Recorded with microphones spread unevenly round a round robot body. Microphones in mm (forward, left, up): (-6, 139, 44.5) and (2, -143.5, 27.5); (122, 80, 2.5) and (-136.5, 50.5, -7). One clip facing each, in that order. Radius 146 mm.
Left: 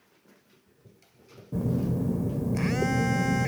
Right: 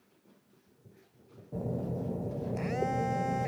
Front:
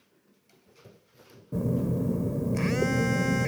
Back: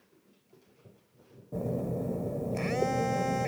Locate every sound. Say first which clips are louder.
1.5 s a phone buzzing: left 7 dB, front 5 dB; 60° left